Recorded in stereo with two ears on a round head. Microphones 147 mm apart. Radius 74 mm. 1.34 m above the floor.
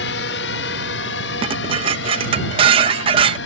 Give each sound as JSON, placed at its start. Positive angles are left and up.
{"t": 0.0, "sound": "a drone", "side_deg": 75}
{"t": 1.4, "sound": "dishes clattering", "side_deg": -35}